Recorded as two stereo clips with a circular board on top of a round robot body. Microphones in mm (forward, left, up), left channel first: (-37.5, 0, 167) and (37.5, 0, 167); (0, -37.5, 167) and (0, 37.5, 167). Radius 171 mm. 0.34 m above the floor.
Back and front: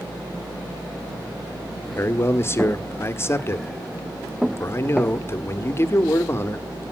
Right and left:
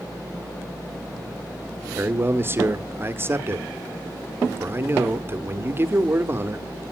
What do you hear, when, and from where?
1.9 s a man speaking: 135° left, 1.6 m